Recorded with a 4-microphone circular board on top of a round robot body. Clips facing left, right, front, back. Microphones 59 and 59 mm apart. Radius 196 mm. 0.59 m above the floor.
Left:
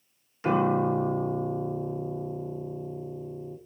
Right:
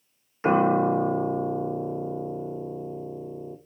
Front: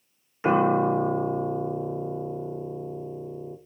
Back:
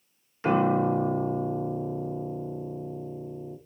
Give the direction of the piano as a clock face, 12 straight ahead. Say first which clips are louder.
Right 3 dB, front 2 dB; 2 o'clock.